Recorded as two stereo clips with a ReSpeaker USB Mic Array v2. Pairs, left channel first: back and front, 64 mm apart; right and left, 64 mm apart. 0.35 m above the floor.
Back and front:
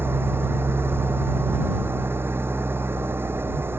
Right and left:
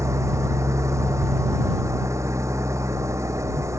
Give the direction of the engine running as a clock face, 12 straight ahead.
10 o'clock.